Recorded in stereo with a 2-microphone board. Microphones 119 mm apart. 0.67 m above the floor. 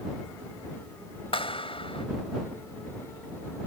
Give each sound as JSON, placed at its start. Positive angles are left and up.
{"t": 1.3, "sound": "a clap", "side_deg": 50}